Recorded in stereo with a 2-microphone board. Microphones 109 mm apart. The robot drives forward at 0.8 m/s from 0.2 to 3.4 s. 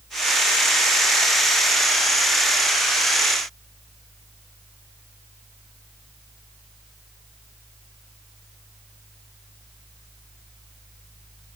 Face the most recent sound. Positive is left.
No sound to turn to.